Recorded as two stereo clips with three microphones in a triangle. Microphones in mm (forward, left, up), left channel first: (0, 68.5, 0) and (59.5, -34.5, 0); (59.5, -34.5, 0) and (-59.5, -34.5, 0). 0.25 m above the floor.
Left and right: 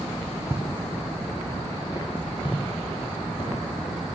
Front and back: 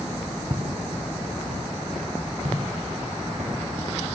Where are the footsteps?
130° right, 0.9 m; by 3.5 s 160° left, 3 m.